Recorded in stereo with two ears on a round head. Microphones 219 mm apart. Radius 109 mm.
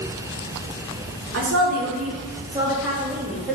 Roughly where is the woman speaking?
Right.